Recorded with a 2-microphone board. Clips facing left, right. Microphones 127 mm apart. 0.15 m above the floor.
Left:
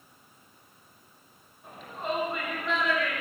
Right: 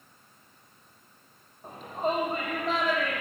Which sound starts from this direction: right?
A shout, at 1.6 s.